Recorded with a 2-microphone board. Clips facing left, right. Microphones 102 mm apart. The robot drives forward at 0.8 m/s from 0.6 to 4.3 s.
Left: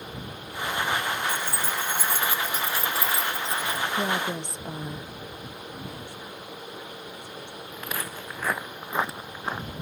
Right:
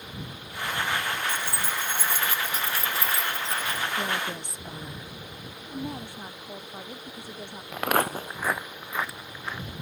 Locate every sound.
1.3 s keys jangling: 50° left (ahead or behind); by 3.8 s 35° left (ahead or behind)
3.9 s a woman speaking: 20° left (ahead or behind); by 5.1 s 25° left (ahead or behind)
5.7 s a woman speaking: 55° right (ahead or behind)
7.7 s footsteps: 80° right; by 9.7 s 40° left (ahead or behind)